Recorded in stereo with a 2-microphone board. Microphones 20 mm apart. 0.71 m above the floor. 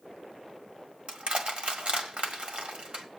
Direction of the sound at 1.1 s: 70° right (ahead or behind).